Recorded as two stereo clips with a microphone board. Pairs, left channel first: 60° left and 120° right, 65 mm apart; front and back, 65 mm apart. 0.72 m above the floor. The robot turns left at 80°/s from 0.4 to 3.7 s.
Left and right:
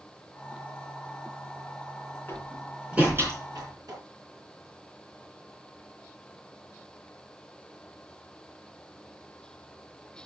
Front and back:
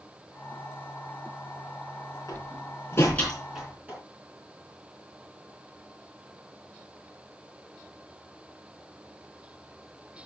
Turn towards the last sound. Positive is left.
turn(degrees=-110)